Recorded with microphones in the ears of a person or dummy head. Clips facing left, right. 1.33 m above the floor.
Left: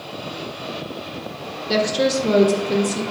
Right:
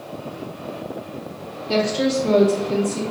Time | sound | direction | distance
1.7 | a woman speaking | 10° left (ahead or behind) | 0.5 m